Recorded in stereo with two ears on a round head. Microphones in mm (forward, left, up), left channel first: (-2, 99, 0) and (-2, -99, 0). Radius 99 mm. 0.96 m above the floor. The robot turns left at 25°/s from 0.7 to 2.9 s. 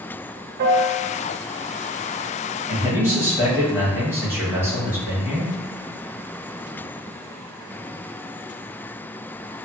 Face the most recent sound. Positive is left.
turn(degrees=-10)  # may be behind; listen again after turning